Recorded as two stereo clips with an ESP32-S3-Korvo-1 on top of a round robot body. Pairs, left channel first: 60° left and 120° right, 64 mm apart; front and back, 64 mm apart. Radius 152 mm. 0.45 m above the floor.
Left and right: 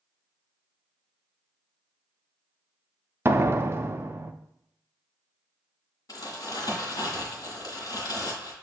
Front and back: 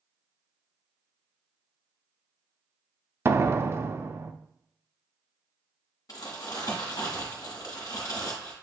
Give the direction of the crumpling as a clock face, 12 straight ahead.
11 o'clock.